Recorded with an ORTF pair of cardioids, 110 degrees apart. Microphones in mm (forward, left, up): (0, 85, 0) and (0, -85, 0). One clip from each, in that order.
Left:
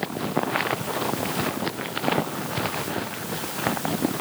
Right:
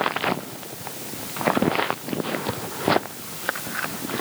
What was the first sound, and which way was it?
Only background noise.